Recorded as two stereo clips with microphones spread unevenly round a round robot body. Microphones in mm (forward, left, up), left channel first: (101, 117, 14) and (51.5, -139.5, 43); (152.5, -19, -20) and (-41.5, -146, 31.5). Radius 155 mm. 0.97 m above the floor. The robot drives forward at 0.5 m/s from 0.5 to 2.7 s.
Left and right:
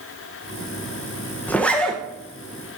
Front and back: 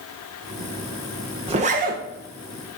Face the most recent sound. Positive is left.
turn(degrees=165)